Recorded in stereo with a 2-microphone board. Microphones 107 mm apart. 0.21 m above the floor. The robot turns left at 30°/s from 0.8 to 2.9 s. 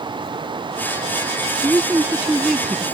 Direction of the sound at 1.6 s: 150° right.